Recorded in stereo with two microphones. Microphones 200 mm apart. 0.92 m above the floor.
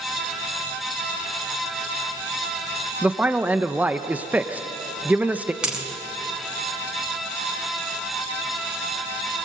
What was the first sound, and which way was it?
A man speaking, 10° right (ahead or behind).